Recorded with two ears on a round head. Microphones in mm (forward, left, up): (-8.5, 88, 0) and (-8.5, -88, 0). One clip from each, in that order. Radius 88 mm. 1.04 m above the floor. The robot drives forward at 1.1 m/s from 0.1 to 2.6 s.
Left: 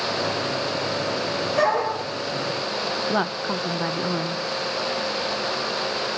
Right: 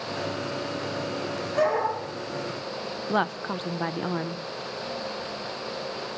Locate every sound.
1.6 s a dog barking: 5° left (ahead or behind), 9.5 m
3.1 s a woman speaking: 15° right (ahead or behind), 0.7 m